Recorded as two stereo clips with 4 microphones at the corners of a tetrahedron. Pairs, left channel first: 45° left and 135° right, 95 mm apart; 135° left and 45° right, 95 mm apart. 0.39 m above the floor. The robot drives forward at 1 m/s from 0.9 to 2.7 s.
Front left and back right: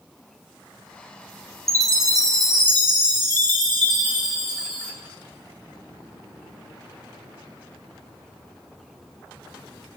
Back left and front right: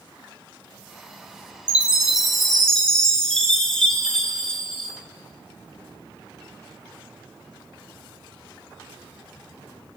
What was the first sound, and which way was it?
A chime, 110° right.